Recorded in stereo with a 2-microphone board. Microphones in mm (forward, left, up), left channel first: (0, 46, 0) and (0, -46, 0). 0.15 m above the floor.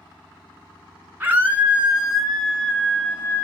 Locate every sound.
1.2 s a scream: 25° right (ahead or behind), 1.1 m; by 3.4 s 25° left (ahead or behind), 1.4 m